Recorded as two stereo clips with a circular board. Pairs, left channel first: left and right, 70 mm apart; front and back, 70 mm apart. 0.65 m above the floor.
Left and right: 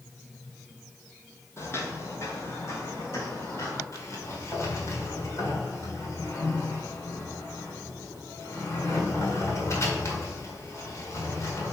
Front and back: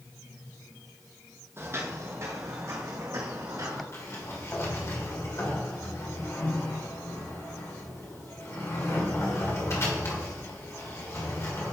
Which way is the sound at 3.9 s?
45° left.